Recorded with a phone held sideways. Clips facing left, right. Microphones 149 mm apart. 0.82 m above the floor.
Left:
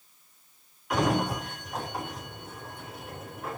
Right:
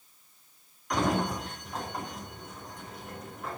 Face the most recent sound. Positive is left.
turn(degrees=5)  # may be behind; listen again after turning